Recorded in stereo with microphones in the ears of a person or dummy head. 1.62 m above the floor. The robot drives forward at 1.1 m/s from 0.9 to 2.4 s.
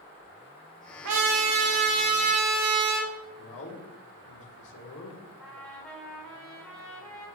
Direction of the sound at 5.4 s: Centre (ahead or behind).